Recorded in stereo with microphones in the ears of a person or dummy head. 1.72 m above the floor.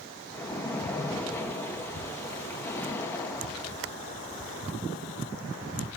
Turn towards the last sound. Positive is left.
turn(degrees=15)  # may be behind; listen again after turning